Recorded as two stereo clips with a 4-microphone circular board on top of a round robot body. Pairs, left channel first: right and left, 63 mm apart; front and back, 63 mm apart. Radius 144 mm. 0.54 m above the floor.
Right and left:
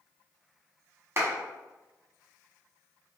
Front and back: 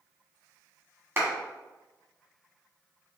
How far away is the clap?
About 1.8 m.